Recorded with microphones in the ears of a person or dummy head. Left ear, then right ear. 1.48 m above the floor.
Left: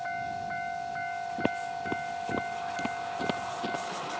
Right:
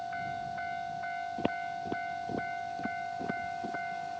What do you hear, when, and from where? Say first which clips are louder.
1.4 s footsteps: left 3 dB; 5° right (ahead or behind); by 3.8 s 45° left (ahead or behind)